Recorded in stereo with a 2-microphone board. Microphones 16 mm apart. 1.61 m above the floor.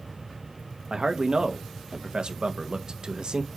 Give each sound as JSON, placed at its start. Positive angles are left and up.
{"t": 0.9, "sound": "a man speaking", "side_deg": -60, "distance_m": 1.4}